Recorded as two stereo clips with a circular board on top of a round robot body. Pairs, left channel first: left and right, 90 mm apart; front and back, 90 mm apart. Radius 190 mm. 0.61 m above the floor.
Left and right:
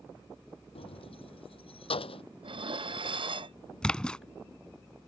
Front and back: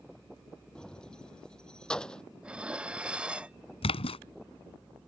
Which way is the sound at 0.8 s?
80° left.